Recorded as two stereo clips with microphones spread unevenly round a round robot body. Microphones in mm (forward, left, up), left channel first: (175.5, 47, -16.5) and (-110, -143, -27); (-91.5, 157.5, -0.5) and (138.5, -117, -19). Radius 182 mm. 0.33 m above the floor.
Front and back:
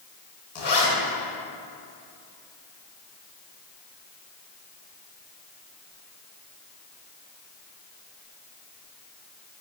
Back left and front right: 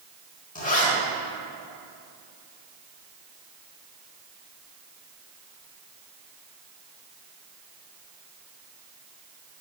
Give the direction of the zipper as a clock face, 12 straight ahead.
10 o'clock.